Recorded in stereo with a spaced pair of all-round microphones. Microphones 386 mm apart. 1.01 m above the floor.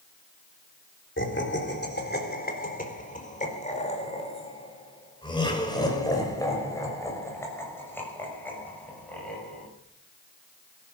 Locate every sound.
1.2 s laughter: 30° left (ahead or behind), 3.5 m; by 9.7 s 5° left (ahead or behind), 7 m